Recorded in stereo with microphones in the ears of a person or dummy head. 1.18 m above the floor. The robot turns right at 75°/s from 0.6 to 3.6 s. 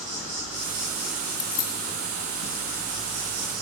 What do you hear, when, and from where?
0.0 s an insect: 35° right, 3 m; by 3.6 s 170° right, 3 m
1.4 s keys jangling: 5° left (ahead or behind), 3 m; by 1.7 s 35° left (ahead or behind), 3 m